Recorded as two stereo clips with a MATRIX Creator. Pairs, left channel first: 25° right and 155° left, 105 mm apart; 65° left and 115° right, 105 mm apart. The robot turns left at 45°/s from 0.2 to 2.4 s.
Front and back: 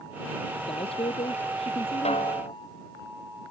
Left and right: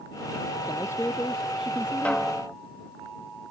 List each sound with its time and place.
0.6 s a man speaking: 20° left; by 2.2 s 55° right
2.0 s a snare drum: 10° right; by 2.5 s 25° right